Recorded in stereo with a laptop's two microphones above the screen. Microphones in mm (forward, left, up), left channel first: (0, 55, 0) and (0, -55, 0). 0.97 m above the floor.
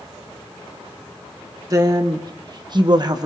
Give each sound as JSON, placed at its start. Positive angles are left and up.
{"t": 1.7, "sound": "a woman speaking", "side_deg": -35, "distance_m": 1.5}